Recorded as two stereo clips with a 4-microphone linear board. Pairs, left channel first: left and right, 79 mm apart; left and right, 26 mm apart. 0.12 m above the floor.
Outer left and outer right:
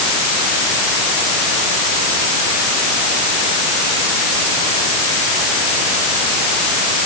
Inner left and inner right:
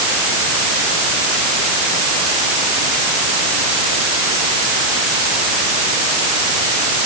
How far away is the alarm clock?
I don't hear an alarm clock.